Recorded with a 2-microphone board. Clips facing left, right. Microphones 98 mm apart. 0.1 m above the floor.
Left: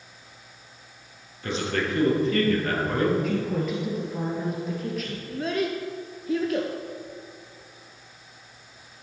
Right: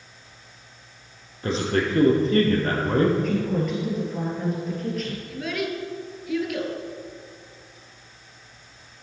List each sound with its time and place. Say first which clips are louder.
1.4 s a man speaking: right 4 dB; 35° right (ahead or behind), 1.9 m
3.2 s a woman speaking: right 2 dB; centre (ahead or behind), 2 m
5.3 s a child speaking: left 4 dB; 35° left (ahead or behind), 1.0 m